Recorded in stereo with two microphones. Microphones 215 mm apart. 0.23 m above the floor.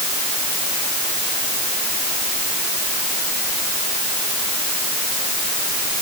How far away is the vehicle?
I don't hear a vehicle.